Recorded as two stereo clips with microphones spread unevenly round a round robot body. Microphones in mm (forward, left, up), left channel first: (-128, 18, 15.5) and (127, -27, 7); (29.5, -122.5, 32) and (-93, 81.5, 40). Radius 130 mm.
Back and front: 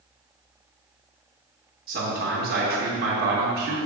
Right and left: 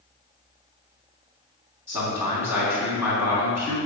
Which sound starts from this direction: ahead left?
A man speaking, at 1.9 s.